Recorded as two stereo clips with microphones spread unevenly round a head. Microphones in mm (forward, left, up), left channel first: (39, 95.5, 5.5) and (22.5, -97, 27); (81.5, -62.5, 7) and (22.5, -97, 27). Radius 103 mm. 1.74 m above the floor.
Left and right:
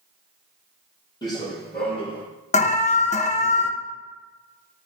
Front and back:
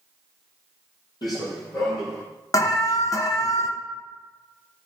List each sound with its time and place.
1.2 s running footsteps: 15° left, 3 m; by 2.2 s 20° left, 4 m
2.5 s an alarm: 35° left, 0.9 m